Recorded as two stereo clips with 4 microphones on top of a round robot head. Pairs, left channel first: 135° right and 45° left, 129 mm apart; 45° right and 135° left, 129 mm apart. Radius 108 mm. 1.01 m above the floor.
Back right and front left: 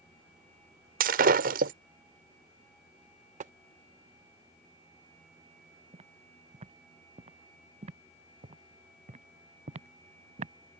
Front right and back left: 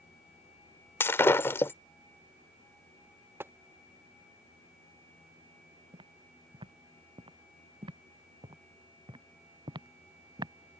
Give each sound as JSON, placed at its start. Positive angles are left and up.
{"t": 1.0, "sound": "breaking glass", "azimuth_deg": 30}
{"t": 3.4, "sound": "tapping", "azimuth_deg": 65}
{"t": 5.9, "sound": "footsteps", "azimuth_deg": 85}